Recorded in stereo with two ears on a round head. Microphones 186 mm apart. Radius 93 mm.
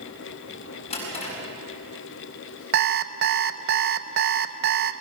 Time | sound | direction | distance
0.9 | a drawer | 30° left (ahead or behind) | 7 m
2.7 | an alarm clock | 50° right (ahead or behind) | 0.7 m